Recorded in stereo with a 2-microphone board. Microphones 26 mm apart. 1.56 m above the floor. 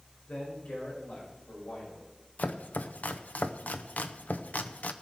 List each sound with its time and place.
0.3 s a man speaking: 75° left (ahead or behind), 5 m; by 2.1 s 85° left, 6.5 m
2.4 s chopping: 80° left, 0.7 m